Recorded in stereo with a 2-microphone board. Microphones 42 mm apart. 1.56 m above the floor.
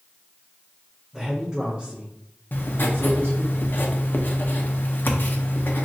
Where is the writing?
50° left (ahead or behind), 0.5 m.